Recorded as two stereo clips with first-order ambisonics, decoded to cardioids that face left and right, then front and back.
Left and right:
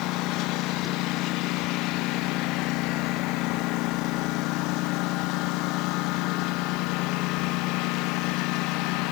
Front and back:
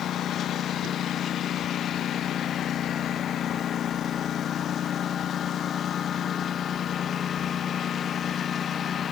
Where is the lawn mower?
55° left; by 9.1 s 65° left.